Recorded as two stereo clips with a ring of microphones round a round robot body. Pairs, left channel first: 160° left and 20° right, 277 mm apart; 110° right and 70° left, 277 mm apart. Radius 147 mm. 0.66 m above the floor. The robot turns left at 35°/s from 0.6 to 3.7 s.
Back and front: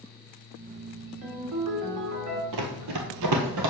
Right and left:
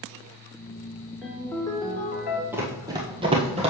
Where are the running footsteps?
15° right, 1.1 m; by 3.7 s straight ahead, 1.3 m.